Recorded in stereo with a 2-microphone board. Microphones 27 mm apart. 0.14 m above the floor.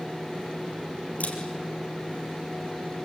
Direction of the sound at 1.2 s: 65° left (ahead or behind).